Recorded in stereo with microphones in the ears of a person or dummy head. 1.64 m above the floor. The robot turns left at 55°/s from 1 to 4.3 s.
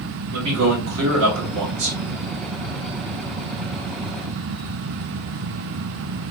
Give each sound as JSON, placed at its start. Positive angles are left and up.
{"t": 0.3, "sound": "a man speaking", "azimuth_deg": -100, "distance_m": 1.4}